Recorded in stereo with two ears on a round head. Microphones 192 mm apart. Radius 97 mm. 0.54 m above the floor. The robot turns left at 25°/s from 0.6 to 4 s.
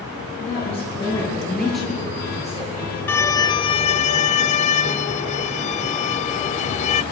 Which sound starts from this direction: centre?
A violin, at 3.1 s.